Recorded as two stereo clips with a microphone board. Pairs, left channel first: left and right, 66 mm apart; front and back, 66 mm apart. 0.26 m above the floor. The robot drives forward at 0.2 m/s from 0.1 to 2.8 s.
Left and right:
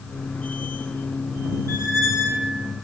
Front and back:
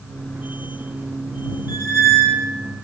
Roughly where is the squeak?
Behind left.